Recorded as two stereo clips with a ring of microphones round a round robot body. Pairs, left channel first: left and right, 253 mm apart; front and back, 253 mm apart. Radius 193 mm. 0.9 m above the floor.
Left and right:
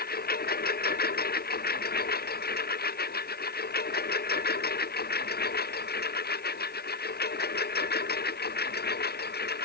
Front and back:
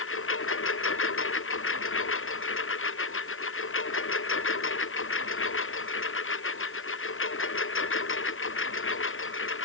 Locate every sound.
0.0 s a lawn mower: 35° left; by 9.7 s 40° left